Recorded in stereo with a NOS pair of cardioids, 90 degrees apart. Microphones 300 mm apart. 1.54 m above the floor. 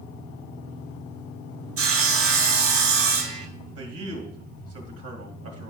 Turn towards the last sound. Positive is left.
turn(degrees=-55)